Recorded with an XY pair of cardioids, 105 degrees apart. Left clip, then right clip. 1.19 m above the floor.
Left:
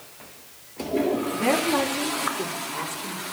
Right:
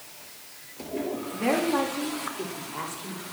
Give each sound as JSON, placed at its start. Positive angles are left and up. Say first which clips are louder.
{"t": 1.3, "sound": "a woman speaking", "louder": "even", "azimuth_deg": 20, "distance_m": 2.5}